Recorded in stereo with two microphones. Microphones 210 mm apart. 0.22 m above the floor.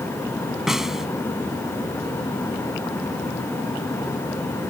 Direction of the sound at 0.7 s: 5° right (ahead or behind).